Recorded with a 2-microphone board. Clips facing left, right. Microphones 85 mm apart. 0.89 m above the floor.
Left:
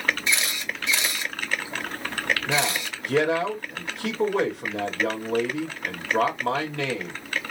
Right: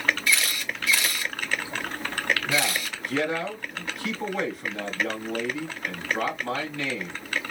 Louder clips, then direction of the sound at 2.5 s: Left 1 dB; 75° left (ahead or behind).